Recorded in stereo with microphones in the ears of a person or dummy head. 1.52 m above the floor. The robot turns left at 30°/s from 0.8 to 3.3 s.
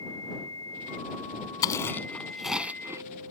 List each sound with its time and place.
1.6 s chewing: 30° left (ahead or behind); by 3.0 s 15° right (ahead or behind)